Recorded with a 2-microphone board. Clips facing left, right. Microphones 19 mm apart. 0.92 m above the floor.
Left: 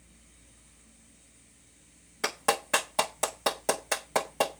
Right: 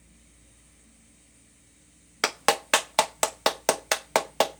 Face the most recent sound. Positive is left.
turn(degrees=-60)  # may be behind; listen again after turning